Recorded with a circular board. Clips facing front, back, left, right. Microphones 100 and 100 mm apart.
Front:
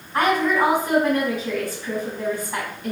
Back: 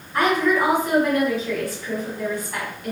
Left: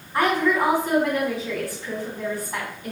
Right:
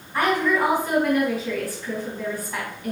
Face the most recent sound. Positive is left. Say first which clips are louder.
# even, left 1 dB
turn(degrees=25)